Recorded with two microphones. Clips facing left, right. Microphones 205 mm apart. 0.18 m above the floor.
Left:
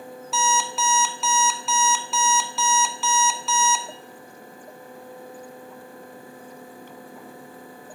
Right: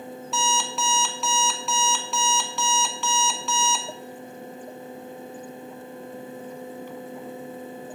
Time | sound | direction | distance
0.3 | an alarm clock | centre (ahead or behind) | 0.8 m